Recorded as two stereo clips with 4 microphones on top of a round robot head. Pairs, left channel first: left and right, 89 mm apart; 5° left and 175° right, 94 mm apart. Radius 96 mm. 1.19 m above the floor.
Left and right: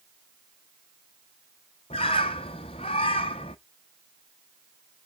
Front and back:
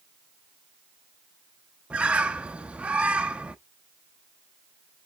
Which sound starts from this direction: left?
A bird, at 1.9 s.